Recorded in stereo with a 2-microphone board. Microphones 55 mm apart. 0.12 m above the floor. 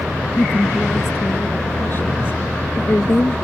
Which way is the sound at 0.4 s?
40° left (ahead or behind).